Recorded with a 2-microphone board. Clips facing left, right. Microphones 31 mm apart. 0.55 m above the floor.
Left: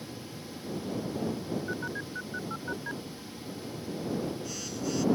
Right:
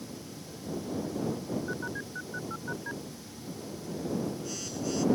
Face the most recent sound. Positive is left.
turn(degrees=0)  # may be behind; listen again after turning